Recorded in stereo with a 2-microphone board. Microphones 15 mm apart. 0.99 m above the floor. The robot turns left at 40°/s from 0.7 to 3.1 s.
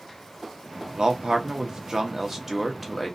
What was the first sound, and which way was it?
A man speaking, 90° right.